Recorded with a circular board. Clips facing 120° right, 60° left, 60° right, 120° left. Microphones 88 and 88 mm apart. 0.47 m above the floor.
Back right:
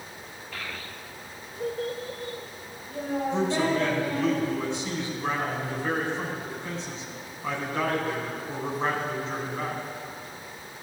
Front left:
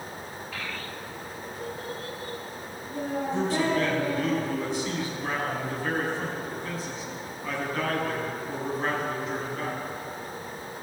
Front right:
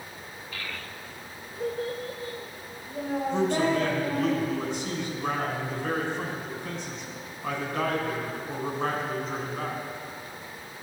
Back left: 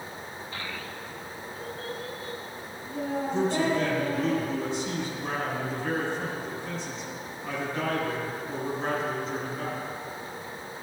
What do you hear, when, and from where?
0.5 s a child speaking: 145° left, 0.6 m; by 4.3 s 60° right, 3 m
3.3 s a man speaking: 55° right, 3.5 m